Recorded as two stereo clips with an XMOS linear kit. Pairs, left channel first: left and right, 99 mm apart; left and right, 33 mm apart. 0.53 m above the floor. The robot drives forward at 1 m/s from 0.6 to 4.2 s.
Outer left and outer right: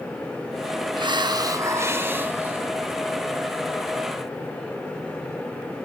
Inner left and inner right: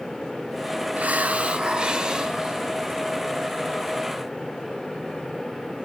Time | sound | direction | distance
1.0 | a hiss | 50° right (ahead or behind) | 0.6 m